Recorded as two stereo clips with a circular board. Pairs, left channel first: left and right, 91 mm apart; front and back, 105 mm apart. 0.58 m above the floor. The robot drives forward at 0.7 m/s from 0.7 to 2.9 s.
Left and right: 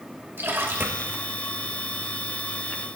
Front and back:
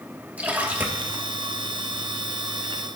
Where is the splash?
120° right, 1.3 m; by 1.2 s 140° right, 1.5 m.